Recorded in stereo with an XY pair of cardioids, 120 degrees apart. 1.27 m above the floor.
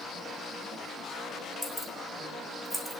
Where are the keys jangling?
5° right, 3.5 m.